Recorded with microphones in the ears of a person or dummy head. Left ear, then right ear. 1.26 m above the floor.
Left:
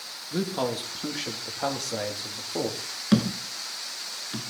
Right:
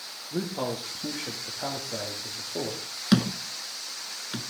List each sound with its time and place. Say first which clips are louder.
0.3 s a man speaking: left 3 dB; 20° left (ahead or behind), 2 m; by 2.8 s 45° left (ahead or behind), 3 m
3.1 s a thud: even; 20° right (ahead or behind), 1.9 m